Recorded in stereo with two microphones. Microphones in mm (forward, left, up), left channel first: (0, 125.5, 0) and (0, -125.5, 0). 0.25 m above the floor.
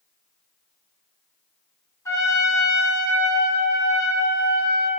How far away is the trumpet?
About 0.6 m.